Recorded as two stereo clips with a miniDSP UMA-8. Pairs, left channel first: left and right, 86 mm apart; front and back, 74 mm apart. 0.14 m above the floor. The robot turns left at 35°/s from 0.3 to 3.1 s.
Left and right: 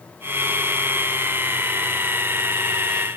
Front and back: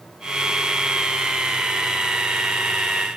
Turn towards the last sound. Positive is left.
No sound to turn to.